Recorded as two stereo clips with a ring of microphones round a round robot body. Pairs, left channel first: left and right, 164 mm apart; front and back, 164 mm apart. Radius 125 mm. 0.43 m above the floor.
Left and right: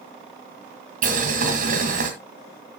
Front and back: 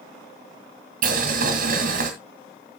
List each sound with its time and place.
1.0 s boiling: 135° right, 2 m